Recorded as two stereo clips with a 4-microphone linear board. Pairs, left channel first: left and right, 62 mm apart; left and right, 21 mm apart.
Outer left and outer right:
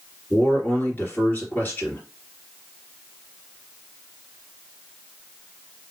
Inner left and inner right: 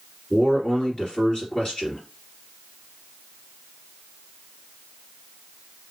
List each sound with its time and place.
0.3 s a man speaking: 30° left (ahead or behind), 2 m